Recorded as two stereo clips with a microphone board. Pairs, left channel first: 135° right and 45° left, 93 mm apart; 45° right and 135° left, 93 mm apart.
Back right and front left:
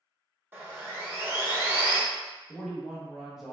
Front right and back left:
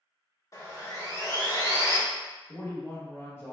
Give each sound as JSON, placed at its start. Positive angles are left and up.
{"t": 0.5, "sound": "sawing", "azimuth_deg": -15, "distance_m": 0.7}
{"t": 2.5, "sound": "a man speaking", "azimuth_deg": -30, "distance_m": 0.9}